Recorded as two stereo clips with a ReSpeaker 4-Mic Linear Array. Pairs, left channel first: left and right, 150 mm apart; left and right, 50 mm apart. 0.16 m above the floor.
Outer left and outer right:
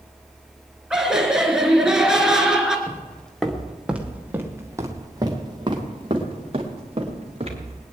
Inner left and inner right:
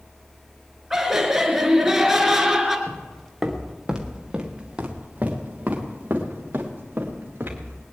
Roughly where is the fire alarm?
No fire alarm in this recording.